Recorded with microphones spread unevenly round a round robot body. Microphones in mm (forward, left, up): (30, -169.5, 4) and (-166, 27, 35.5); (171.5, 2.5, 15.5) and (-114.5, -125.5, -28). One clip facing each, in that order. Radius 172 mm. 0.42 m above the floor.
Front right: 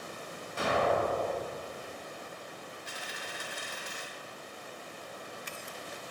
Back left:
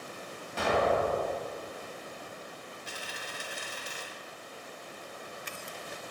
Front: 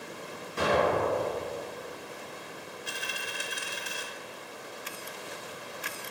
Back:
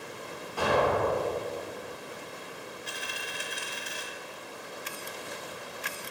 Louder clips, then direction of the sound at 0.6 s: Back left 2 dB, even; 95° left.